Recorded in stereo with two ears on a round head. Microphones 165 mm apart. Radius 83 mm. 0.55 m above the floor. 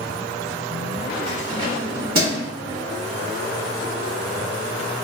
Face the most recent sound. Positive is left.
turn(degrees=-55)  # may be behind; listen again after turning